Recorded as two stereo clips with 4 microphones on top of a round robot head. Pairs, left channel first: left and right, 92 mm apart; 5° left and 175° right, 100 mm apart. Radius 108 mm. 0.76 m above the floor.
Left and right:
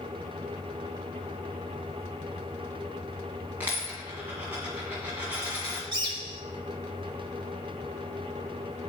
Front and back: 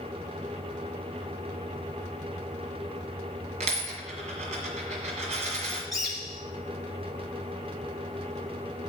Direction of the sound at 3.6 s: 165° right.